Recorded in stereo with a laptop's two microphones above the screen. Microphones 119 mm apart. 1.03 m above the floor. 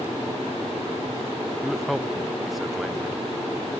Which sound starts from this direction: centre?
A man speaking, at 1.6 s.